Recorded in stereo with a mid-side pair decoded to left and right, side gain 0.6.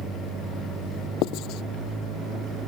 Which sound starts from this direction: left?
Writing, at 1.2 s.